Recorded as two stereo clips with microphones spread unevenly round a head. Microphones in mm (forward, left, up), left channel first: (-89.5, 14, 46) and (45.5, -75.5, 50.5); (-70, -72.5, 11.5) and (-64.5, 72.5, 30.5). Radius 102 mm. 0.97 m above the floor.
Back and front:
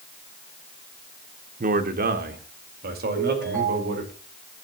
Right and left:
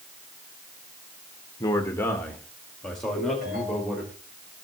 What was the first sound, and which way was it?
A man speaking, 40° right.